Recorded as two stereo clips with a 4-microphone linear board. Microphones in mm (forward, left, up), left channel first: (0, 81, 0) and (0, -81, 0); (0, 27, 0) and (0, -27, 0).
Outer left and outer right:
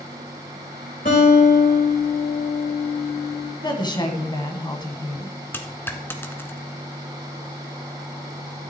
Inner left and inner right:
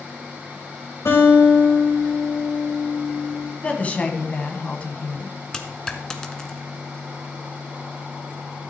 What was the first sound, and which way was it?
A guitar, 55° left (ahead or behind).